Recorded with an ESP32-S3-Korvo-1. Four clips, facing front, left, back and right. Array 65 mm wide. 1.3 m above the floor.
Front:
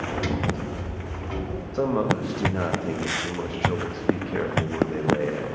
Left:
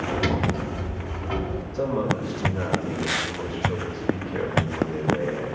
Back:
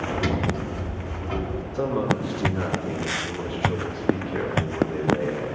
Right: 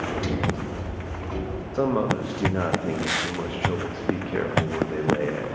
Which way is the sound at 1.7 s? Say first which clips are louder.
Right 2 dB, front 1 dB; 55° right.